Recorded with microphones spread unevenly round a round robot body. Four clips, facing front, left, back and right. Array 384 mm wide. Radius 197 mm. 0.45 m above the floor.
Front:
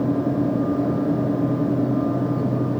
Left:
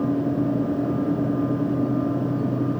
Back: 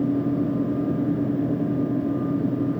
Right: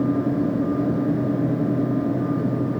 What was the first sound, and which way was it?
Only background noise.